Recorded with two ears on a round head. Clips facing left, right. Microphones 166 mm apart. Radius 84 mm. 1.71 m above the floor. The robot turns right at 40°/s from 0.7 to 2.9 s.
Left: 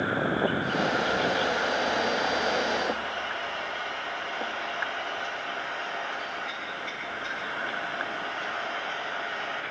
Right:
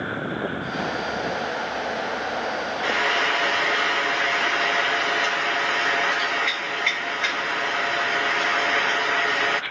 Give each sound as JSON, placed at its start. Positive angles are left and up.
{"t": 2.8, "sound": "frying", "side_deg": -85, "distance_m": 1.3}